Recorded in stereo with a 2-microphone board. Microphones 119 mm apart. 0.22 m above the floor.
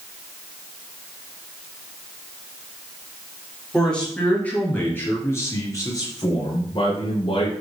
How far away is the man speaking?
About 4.5 m.